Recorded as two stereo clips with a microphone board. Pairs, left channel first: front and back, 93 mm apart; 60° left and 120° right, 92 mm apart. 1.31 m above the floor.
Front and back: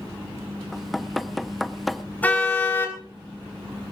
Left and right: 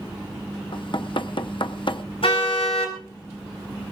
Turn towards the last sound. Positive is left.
turn(degrees=75)